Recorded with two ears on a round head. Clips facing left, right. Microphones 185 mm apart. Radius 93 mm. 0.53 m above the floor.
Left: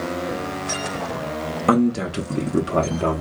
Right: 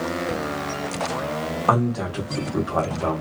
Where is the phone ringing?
No phone ringing in this recording.